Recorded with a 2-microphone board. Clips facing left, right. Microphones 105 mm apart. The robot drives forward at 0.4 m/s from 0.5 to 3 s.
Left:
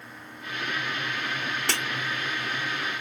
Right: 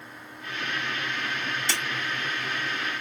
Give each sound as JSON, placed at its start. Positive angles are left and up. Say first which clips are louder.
{"t": 1.7, "sound": "breaking glass", "louder": "left 3 dB", "side_deg": 60, "distance_m": 2.5}